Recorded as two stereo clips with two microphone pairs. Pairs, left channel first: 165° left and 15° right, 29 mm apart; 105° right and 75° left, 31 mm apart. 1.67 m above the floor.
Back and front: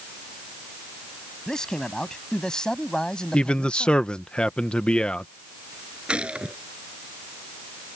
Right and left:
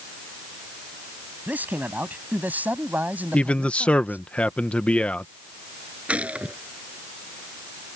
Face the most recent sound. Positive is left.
turn(degrees=35)